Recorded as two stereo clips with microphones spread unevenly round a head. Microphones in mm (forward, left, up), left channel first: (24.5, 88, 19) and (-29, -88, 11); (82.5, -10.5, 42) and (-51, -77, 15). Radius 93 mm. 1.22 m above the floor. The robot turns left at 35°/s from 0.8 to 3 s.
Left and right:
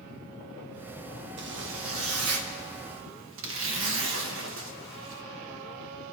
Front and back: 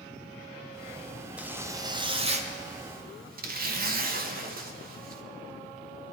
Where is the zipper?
70° right, 1.2 m; by 5.2 s 130° right, 1.2 m.